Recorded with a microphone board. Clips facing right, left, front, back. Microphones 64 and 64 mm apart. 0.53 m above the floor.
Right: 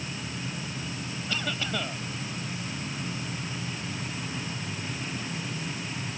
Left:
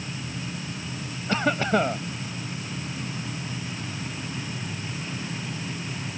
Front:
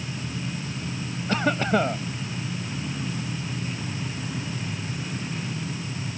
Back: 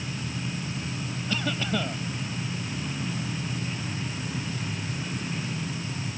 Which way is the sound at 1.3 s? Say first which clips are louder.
Left 10 dB, front 7 dB; 45° left.